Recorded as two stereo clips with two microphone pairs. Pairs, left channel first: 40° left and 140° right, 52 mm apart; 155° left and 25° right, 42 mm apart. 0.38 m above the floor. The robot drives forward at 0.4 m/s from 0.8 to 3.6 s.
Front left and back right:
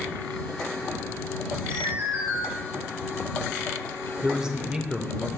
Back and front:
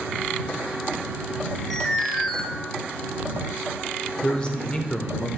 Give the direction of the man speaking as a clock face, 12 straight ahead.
6 o'clock.